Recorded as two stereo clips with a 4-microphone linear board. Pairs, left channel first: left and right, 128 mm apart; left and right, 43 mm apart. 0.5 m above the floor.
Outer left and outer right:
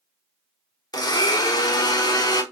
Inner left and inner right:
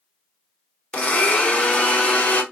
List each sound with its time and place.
0.9 s a blender: 30° left (ahead or behind), 0.8 m